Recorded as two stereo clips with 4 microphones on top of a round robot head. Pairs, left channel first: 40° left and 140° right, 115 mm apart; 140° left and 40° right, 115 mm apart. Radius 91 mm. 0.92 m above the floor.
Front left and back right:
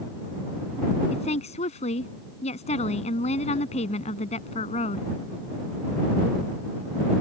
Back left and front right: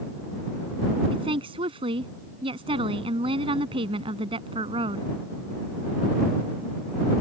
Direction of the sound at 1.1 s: 5° left.